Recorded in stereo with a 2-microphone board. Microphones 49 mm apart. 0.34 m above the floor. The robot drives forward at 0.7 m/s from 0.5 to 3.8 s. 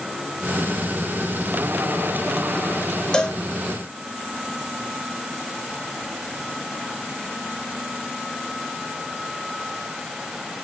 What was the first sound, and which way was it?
A cowbell, 20° left (ahead or behind).